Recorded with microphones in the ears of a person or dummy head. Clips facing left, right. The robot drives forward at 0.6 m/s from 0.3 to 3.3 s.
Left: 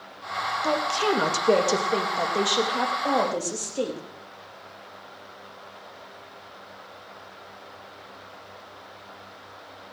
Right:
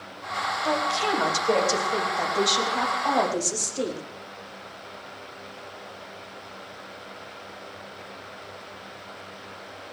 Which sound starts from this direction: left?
A woman speaking, at 0.6 s.